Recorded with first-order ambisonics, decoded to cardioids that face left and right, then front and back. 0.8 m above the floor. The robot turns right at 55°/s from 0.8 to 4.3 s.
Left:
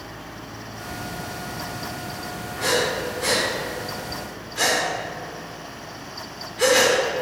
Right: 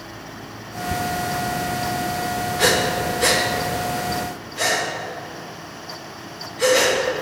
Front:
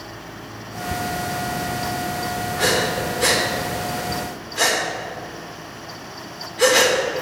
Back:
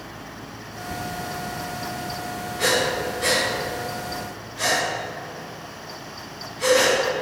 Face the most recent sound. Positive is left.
turn(degrees=25)